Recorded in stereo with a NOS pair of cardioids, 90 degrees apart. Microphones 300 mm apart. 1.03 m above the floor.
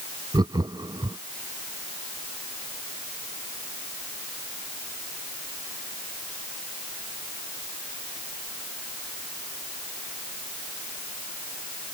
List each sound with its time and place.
0.3 s laughter: 15° right